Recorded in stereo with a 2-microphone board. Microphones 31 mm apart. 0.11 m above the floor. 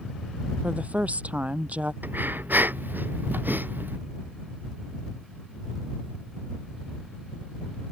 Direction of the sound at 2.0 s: 80° right.